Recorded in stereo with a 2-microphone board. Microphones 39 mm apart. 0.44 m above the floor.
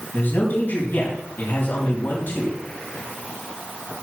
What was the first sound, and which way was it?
A man speaking, 60° left (ahead or behind).